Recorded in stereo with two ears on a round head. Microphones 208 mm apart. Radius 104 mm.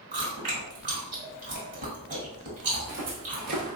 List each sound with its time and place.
0.1 s chewing: 30° right (ahead or behind), 1.5 m
2.7 s footsteps: 35° right (ahead or behind), 1.9 m; by 3.8 s 30° right (ahead or behind), 0.8 m